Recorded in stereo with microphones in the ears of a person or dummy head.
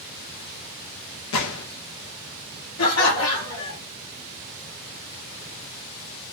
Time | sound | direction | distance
1.3 | a gunshot | 80° left | 0.8 m
2.8 | laughter | 75° left (ahead or behind) | 1.1 m